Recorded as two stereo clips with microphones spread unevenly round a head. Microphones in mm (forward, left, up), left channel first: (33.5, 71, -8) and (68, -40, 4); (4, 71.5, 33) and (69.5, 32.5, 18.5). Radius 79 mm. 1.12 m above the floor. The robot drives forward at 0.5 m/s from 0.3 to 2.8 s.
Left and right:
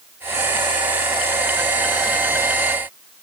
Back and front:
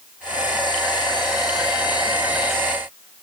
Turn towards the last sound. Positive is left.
No sound to turn to.